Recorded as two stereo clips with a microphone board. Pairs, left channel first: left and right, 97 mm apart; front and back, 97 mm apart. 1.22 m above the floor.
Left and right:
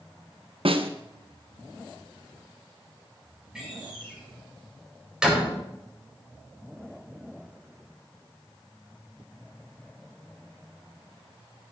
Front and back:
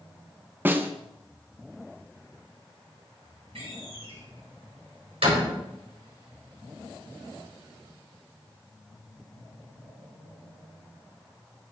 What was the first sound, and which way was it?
A snare drum, 110° right.